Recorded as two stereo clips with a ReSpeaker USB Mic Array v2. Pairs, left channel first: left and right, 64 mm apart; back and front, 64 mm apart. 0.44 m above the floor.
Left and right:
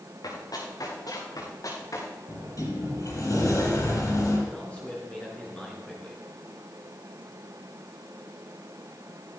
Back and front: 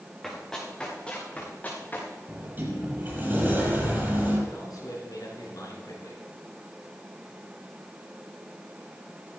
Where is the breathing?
No breathing in this recording.